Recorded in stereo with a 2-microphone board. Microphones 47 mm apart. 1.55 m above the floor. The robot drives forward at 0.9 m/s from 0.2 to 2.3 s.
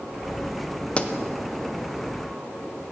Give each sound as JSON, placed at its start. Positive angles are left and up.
{"t": 1.0, "sound": "a pop", "side_deg": 25, "distance_m": 0.6}